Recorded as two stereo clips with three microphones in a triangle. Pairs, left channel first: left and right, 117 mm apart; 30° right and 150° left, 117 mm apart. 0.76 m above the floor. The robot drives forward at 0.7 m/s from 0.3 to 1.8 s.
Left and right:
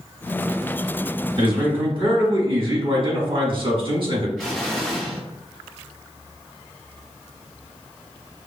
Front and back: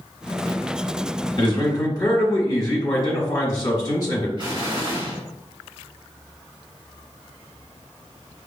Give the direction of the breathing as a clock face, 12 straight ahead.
No breathing in this recording.